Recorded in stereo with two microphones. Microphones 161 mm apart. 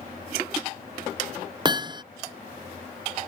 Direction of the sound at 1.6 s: 30° right (ahead or behind).